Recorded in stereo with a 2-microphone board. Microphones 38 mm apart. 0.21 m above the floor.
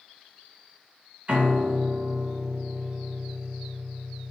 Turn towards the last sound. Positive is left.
turn(degrees=-30)  # may be behind; listen again after turning